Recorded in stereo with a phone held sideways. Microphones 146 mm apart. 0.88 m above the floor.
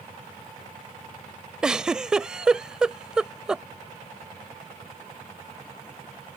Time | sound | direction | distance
1.6 | a giggle | 5° right (ahead or behind) | ?